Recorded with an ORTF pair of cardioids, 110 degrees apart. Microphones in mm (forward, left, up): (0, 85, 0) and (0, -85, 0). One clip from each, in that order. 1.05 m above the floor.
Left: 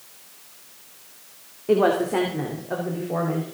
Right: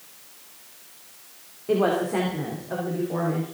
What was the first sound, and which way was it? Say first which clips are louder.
A woman speaking: left 3 dB; 20° left.